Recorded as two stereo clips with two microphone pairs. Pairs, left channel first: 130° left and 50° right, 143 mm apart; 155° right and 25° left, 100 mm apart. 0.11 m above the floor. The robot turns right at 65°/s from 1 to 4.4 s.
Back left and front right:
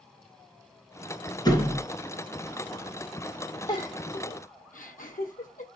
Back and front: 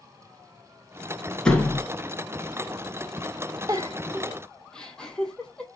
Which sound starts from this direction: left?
A giggle, at 3.7 s.